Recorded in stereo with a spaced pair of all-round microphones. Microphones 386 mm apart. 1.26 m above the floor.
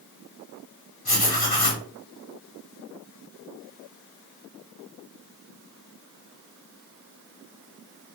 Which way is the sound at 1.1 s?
70° left (ahead or behind).